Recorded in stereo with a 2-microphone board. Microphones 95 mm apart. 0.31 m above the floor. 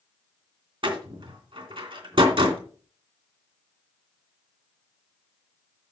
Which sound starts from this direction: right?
A door slam, at 0.8 s.